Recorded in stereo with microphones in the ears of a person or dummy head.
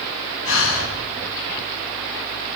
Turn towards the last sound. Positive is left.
turn(degrees=70)  # may be behind; listen again after turning